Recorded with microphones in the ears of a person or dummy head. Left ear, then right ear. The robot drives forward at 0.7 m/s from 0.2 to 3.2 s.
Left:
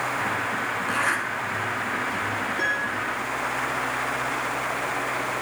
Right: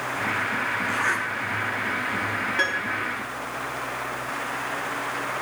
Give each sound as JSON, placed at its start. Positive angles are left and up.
{"t": 0.9, "sound": "a zipper", "side_deg": 20, "distance_m": 3.5}
{"t": 2.6, "sound": "a piano", "side_deg": -40, "distance_m": 1.7}